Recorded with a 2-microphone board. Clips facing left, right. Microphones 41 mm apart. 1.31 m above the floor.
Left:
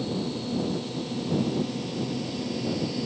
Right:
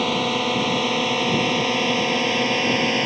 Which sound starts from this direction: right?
A drone, at 0.0 s.